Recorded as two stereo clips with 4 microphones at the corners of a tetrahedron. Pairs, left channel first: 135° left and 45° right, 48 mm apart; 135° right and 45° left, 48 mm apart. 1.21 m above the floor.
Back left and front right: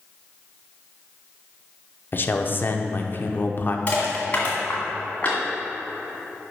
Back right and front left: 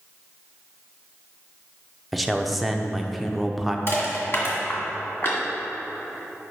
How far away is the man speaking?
About 0.6 m.